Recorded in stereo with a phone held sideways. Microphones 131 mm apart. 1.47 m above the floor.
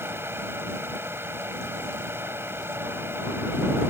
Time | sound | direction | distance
0.0 | a fan | 15° right (ahead or behind) | ?